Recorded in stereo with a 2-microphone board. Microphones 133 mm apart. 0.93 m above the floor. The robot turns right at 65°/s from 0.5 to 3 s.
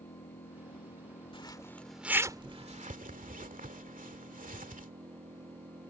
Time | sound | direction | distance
0.0 | an engine running | 75° left | ?
1.3 | a zipper | 40° left (ahead or behind) | ?